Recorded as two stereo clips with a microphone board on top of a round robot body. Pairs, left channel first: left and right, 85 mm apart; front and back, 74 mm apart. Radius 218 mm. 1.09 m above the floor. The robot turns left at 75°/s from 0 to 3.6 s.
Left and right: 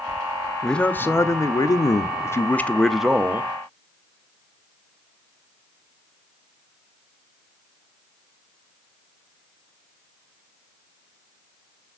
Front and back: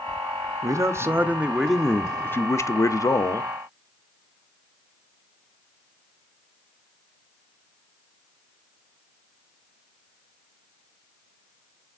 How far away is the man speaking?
About 0.7 m.